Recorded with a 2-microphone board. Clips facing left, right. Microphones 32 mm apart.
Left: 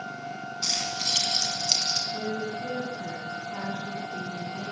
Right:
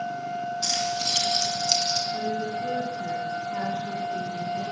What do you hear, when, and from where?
0.6 s keys jangling: 20° left (ahead or behind), 3 m; by 2.0 s 15° left (ahead or behind), 2.5 m
2.1 s a woman speaking: 40° left (ahead or behind), 3.5 m